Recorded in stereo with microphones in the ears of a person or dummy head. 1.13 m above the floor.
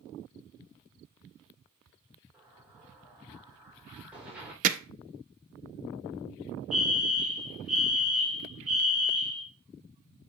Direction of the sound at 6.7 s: 5° left (ahead or behind).